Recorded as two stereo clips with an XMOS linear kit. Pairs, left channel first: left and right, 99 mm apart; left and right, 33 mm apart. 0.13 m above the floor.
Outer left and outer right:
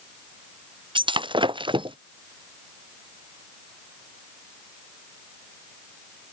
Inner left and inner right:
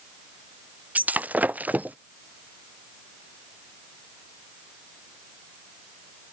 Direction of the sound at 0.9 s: 60° right (ahead or behind).